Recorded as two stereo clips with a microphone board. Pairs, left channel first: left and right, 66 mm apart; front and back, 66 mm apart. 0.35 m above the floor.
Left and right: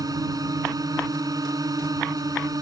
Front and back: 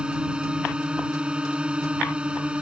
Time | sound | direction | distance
0.0 | a drone | 105° right | ?